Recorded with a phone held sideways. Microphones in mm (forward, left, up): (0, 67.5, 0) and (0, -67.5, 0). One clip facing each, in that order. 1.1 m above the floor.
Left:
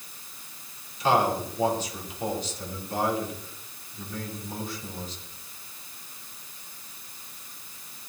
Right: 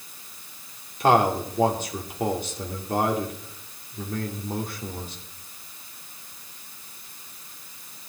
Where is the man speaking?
60° right (ahead or behind), 2.5 m.